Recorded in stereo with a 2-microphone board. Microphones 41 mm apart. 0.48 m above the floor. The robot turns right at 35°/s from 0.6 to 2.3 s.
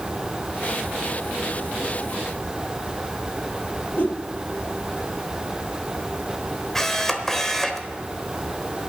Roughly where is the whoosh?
Left.